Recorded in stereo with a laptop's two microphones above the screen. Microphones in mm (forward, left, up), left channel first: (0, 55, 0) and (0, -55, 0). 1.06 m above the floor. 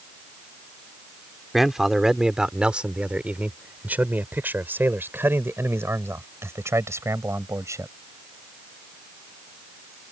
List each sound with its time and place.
1.5 s a man speaking: centre (ahead or behind); by 7.9 s 30° right (ahead or behind)